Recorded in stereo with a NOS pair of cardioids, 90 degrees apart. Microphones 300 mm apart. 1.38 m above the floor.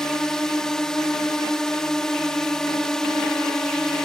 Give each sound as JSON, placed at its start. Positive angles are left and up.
{"t": 0.0, "sound": "a drone", "azimuth_deg": 0}